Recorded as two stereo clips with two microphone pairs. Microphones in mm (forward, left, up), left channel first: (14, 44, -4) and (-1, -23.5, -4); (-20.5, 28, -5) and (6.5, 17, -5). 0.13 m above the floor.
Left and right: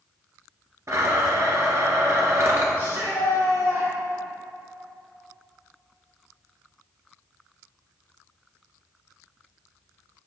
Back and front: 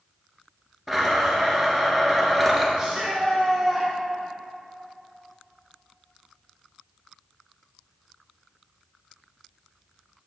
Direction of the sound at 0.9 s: 110° right.